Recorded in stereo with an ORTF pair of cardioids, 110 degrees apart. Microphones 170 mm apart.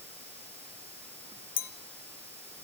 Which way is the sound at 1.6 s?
60° left.